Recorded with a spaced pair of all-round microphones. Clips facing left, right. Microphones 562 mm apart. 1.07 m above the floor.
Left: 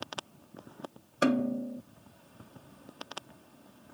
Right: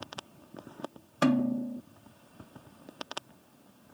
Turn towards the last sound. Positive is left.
turn(degrees=-20)  # may be behind; listen again after turning